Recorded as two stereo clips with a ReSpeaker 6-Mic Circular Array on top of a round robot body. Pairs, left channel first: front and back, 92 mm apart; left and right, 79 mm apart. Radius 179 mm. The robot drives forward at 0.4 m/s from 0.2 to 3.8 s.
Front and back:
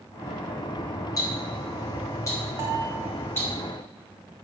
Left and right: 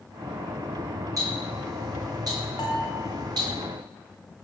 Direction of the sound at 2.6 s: 120° left.